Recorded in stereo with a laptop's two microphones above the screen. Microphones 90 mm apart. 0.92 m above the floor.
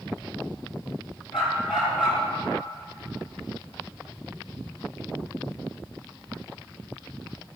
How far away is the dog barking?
About 5.5 m.